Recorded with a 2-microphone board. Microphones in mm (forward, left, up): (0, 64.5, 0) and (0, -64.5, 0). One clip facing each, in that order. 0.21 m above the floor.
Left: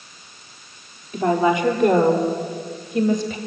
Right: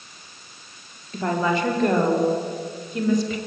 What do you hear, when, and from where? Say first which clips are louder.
1.1 s a woman speaking: left 5 dB; 15° left (ahead or behind), 5.5 m; by 3.4 s 25° left (ahead or behind), 6 m